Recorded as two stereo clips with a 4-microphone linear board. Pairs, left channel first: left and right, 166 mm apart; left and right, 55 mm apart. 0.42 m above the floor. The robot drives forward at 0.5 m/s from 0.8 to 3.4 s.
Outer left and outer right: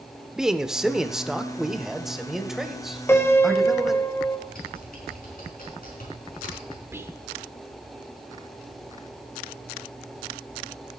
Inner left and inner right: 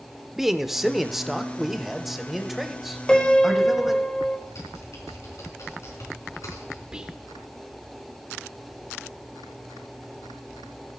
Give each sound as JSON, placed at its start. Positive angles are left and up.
{"t": 0.4, "sound": "a man speaking", "side_deg": -5, "distance_m": 0.8}
{"t": 3.1, "sound": "a piano", "side_deg": 15, "distance_m": 1.3}
{"t": 4.5, "sound": "typing on a keyboard", "side_deg": 60, "distance_m": 5.0}
{"t": 6.9, "sound": "whispering", "side_deg": -15, "distance_m": 0.9}